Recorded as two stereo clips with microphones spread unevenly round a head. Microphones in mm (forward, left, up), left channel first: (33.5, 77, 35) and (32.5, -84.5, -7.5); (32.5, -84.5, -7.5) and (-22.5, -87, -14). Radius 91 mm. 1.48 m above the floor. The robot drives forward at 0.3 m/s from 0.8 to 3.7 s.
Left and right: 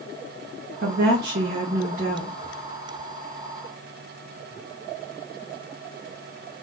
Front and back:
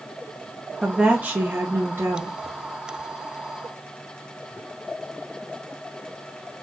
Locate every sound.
0.8 s a woman speaking: 100° right, 0.6 m; by 2.4 s 135° right, 0.8 m